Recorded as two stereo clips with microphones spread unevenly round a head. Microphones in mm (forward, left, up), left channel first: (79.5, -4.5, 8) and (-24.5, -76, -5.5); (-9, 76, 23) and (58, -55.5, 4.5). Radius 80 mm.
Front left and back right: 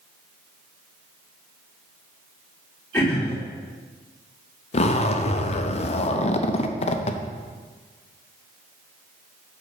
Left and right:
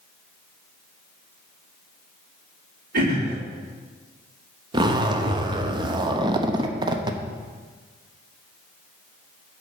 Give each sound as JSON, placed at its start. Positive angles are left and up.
{"t": 2.9, "sound": "throat clearing", "azimuth_deg": -40, "distance_m": 3.5}
{"t": 4.7, "sound": "a zipper", "azimuth_deg": -5, "distance_m": 0.7}